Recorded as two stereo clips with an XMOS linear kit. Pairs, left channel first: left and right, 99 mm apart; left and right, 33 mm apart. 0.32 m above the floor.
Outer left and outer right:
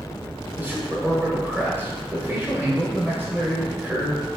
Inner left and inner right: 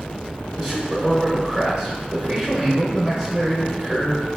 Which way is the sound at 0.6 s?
20° right (ahead or behind).